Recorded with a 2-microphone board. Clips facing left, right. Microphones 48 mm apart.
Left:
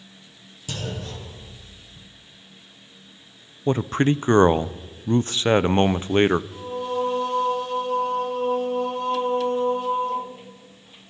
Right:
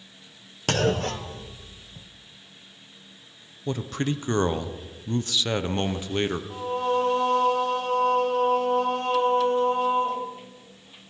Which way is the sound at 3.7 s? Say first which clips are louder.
Left 7 dB; 35° left (ahead or behind).